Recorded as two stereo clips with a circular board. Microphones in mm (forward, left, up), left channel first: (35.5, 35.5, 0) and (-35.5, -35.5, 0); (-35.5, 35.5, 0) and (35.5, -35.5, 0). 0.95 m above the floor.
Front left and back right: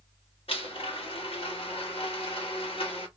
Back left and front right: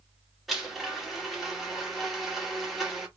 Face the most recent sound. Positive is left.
turn(degrees=45)